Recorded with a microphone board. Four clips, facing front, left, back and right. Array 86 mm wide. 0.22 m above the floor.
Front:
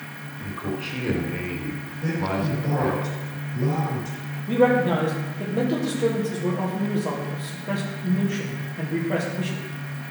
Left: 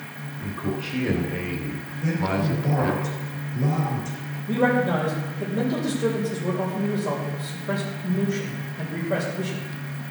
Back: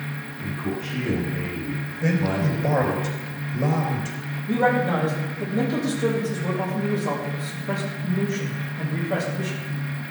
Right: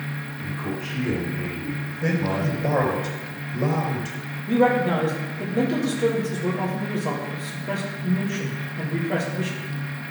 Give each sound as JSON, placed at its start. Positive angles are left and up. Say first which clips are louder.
{"t": 0.4, "sound": "a man speaking", "louder": "left 2 dB, back 1 dB", "azimuth_deg": 15, "distance_m": 3.0}
{"t": 2.0, "sound": "a man speaking", "louder": "even, back 2 dB", "azimuth_deg": -110, "distance_m": 3.0}
{"t": 4.5, "sound": "a man speaking", "louder": "right 2 dB, front 2 dB", "azimuth_deg": -40, "distance_m": 5.0}